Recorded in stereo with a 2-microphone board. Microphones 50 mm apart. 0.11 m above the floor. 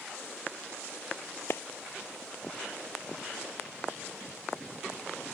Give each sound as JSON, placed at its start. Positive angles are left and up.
{"t": 1.5, "sound": "a clap", "side_deg": 55}